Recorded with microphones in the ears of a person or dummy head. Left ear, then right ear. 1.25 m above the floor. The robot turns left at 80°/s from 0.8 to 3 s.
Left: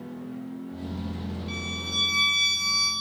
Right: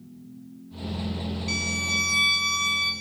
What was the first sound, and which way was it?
A violin, 85° right.